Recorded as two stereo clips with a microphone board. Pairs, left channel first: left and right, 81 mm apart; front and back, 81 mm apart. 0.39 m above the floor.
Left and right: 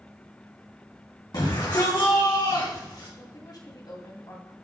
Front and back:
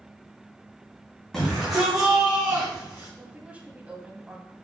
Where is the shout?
85° left, 2.5 m; by 3.1 s 120° left, 4 m.